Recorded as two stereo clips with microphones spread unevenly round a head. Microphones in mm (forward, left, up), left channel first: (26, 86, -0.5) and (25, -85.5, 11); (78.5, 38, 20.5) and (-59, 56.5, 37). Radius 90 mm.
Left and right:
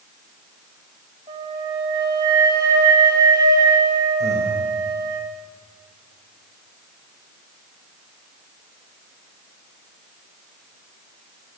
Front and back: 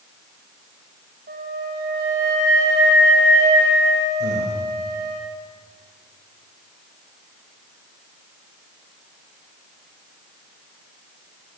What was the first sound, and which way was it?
A flute, 155° right.